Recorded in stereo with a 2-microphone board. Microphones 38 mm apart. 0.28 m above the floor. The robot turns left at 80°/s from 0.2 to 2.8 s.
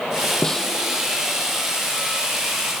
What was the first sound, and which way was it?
A snare drum, 20° left (ahead or behind).